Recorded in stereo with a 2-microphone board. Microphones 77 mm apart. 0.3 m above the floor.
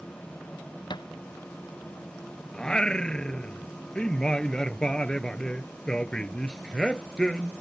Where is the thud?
80° left.